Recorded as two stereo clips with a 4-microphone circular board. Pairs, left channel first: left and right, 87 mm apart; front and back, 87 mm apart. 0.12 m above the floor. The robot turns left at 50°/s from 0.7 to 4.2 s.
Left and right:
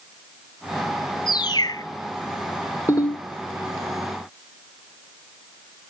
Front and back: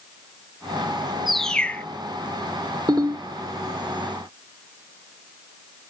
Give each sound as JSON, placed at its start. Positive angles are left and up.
{"t": 1.3, "sound": "a bird", "azimuth_deg": 90, "distance_m": 0.5}
{"t": 2.9, "sound": "a ringtone", "azimuth_deg": 150, "distance_m": 2.5}